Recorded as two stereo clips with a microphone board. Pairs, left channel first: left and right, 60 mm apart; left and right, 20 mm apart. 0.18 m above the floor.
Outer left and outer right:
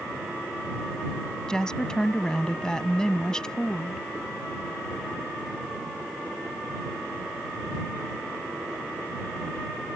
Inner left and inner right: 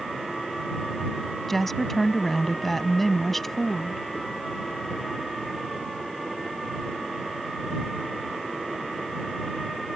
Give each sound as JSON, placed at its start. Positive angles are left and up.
{"t": 1.5, "sound": "a woman speaking", "side_deg": 10}